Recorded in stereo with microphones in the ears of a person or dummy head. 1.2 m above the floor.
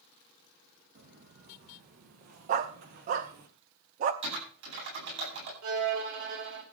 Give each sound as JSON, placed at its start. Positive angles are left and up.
{"t": 0.9, "sound": "footsteps", "side_deg": -50, "distance_m": 3.0}
{"t": 2.5, "sound": "a dog barking", "side_deg": -40, "distance_m": 0.8}
{"t": 4.2, "sound": "typing on a keyboard", "side_deg": -65, "distance_m": 9.5}
{"t": 5.6, "sound": "a violin", "side_deg": -70, "distance_m": 2.5}